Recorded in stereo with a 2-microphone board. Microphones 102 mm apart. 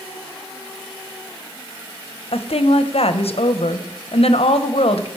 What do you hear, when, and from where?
2.3 s a woman speaking: 75° left (ahead or behind), 0.8 m